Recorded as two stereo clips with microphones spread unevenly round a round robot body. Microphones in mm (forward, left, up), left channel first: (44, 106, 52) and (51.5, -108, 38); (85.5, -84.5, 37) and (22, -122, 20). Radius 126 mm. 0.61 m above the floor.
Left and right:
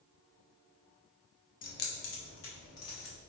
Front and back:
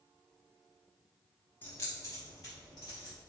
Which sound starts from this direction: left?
Keys jangling, at 1.6 s.